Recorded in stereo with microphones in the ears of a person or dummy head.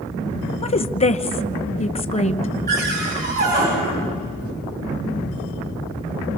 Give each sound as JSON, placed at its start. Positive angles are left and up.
{"t": 0.6, "sound": "a woman speaking", "side_deg": 25, "distance_m": 1.0}
{"t": 2.7, "sound": "a cupboard door", "side_deg": -45, "distance_m": 9.0}